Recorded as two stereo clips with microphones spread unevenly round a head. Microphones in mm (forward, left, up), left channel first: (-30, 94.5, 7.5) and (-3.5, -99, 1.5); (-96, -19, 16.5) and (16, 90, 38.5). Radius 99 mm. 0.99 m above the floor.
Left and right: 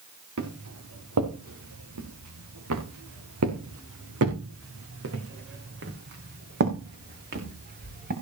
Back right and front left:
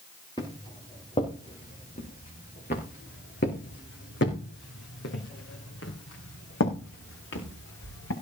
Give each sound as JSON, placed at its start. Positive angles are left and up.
{"t": 0.4, "sound": "footsteps", "azimuth_deg": -60, "distance_m": 4.5}